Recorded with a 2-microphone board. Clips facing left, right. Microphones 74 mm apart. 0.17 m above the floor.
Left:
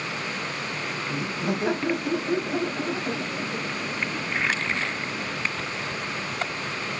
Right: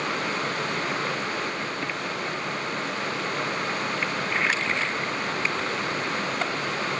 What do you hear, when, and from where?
1.1 s laughter: 70° left (ahead or behind); by 5.3 s 20° left (ahead or behind)